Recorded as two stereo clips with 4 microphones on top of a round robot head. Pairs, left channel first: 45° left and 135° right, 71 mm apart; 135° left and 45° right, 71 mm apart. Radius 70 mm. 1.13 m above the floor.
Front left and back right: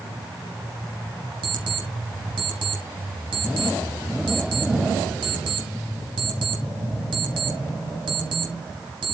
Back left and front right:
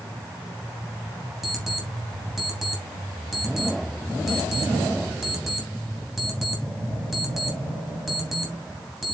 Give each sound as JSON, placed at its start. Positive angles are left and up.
{"t": 1.4, "sound": "an alarm clock", "azimuth_deg": -135, "distance_m": 3.5}